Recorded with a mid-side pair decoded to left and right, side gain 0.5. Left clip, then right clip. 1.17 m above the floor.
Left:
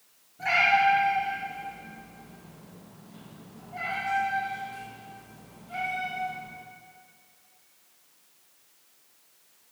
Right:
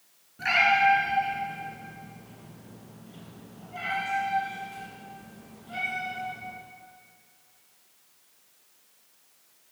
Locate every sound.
0.4 s a cat meowing: 55° right, 3.5 m; by 6.5 s 70° right, 7.5 m